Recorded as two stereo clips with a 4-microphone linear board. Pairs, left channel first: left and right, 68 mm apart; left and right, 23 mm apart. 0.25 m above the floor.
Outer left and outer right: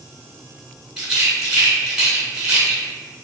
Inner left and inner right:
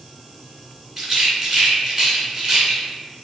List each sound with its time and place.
1.0 s a rattle: 10° right (ahead or behind), 1.5 m